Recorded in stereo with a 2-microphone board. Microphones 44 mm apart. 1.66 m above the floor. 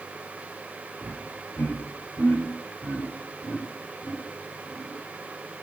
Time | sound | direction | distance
1.0 | laughter | 40° left (ahead or behind) | 6.5 m